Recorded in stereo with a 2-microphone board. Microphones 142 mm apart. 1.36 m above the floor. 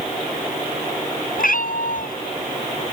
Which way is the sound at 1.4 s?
80° left.